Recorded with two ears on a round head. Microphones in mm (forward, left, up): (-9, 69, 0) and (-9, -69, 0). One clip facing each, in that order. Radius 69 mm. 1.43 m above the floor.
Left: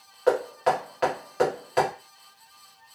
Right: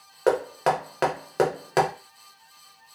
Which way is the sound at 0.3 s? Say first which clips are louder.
Even; 65° right (ahead or behind).